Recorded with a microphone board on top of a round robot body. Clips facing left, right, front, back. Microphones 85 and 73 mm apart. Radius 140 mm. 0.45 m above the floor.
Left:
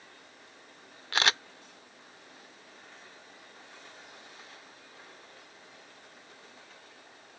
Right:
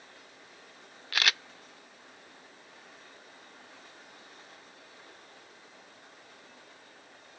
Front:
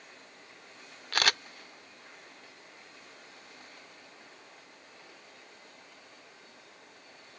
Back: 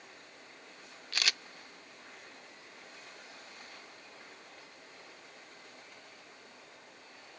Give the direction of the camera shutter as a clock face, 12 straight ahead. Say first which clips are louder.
Left 3 dB, front 7 dB; 11 o'clock.